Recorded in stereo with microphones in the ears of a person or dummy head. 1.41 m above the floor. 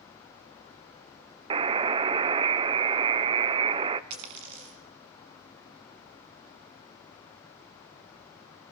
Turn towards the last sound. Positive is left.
turn(degrees=-30)  # may be behind; listen again after turning